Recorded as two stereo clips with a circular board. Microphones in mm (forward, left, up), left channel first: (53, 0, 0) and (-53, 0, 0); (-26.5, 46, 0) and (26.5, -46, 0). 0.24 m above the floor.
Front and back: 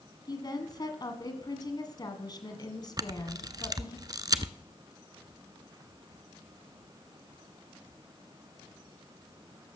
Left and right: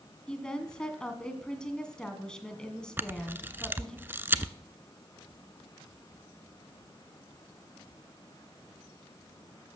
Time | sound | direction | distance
0.3 | a woman speaking | 40° left | 2.0 m
3.0 | a camera shutter | 130° right | 0.6 m